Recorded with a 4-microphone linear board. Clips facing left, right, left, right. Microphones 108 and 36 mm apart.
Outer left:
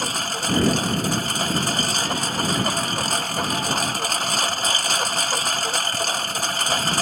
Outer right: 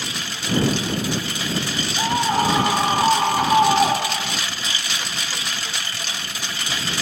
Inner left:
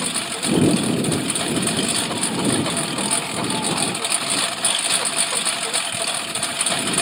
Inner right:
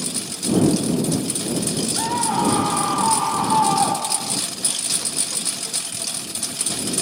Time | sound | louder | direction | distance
0.0 | a lawn mower | outer left 4 dB, inner left 4 dB | 40° left (ahead or behind) | ?
2.0 | a scream | outer right 6 dB, inner right 3 dB | 60° right (ahead or behind) | ?